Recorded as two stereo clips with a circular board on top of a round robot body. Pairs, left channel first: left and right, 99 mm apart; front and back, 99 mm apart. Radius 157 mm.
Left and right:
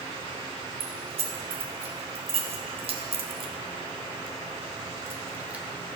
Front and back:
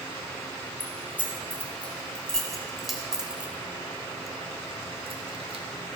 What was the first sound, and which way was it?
Keys jangling, 70° right.